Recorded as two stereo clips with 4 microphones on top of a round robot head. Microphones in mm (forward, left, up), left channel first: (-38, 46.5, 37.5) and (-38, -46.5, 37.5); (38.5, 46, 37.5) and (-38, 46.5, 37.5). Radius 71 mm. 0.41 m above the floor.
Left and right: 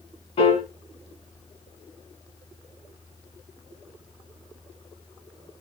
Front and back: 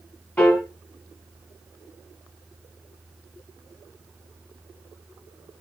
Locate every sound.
0.4 s a piano: 70° left, 1.4 m